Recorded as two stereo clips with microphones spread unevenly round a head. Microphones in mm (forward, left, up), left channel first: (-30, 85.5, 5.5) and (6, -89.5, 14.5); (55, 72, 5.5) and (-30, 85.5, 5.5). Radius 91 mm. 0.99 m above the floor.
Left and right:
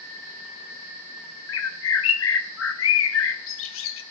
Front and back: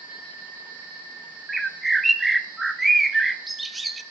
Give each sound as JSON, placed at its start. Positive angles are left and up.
{"t": 1.5, "sound": "a bird", "azimuth_deg": 80, "distance_m": 1.0}